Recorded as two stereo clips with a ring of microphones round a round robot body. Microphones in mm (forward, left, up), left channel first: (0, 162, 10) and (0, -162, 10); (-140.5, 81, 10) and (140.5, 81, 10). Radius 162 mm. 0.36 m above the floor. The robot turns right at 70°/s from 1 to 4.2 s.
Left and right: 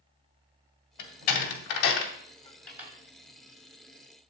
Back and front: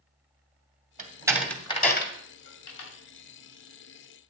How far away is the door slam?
About 1.8 m.